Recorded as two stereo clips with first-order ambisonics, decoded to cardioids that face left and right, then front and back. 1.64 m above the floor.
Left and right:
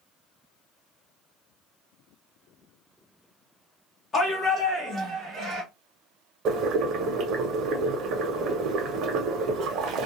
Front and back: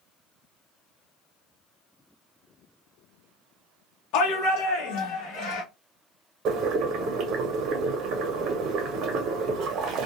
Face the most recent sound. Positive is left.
turn(degrees=-135)